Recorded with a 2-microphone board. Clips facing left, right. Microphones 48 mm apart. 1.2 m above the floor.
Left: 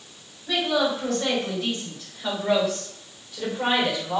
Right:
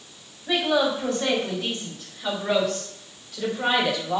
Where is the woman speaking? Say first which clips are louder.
Right 1 dB; 20° right (ahead or behind), 4 m; by 4.2 s 10° left (ahead or behind), 4 m.